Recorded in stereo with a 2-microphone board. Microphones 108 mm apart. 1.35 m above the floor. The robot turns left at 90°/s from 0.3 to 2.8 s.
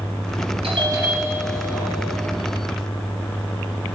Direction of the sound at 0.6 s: 125° right.